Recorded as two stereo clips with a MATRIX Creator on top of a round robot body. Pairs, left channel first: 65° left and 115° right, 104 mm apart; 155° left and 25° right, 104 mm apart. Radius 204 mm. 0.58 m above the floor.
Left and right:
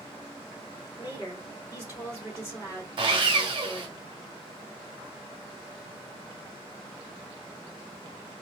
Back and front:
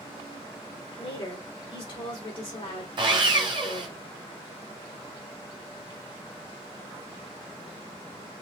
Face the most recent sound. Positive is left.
turn(degrees=-70)